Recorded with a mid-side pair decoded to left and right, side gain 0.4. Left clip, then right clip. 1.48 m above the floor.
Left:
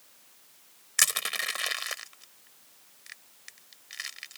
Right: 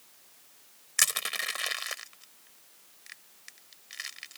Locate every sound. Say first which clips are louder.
1.0 s crushing: left 1 dB; 10° left